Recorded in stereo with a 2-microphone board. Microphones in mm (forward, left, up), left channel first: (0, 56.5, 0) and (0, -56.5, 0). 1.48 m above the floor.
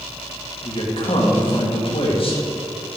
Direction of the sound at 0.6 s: 50° left (ahead or behind).